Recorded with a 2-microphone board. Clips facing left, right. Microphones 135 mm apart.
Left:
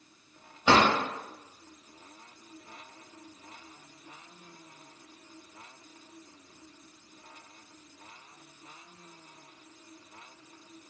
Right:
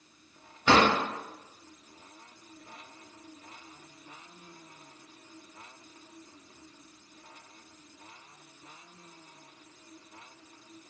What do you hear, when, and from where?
0.7 s a drawer: 15° left (ahead or behind), 1.0 m